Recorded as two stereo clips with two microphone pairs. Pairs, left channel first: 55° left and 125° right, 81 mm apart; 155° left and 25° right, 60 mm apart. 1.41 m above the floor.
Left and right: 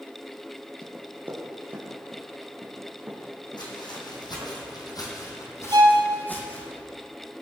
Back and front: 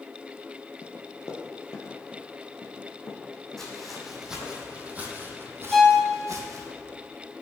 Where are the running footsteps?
175° left, 1.8 m.